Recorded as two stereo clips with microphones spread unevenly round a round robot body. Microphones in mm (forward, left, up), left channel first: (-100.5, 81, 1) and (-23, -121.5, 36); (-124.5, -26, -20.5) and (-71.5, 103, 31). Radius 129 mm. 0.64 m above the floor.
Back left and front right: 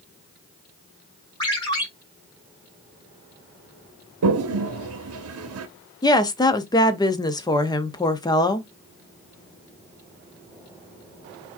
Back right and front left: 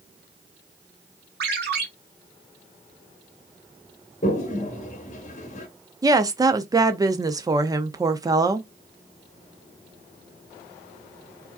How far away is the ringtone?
About 1.4 m.